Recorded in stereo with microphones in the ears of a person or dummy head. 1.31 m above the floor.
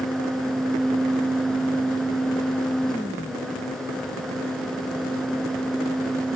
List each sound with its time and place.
Only background noise.